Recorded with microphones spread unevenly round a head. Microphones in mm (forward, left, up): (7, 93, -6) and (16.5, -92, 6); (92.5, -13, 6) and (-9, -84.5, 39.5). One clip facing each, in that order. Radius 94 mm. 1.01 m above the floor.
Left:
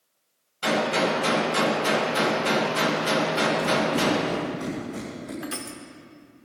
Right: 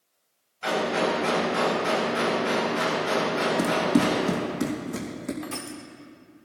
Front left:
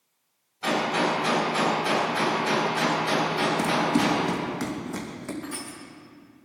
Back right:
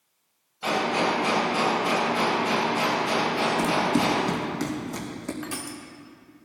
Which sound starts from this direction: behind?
Crushing, at 5.4 s.